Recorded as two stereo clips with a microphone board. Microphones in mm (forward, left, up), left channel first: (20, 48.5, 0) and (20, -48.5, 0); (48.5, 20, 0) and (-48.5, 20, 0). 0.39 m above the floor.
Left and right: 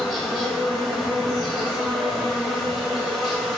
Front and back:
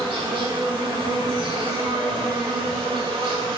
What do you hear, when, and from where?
0.0 s an insect: straight behind, 0.8 m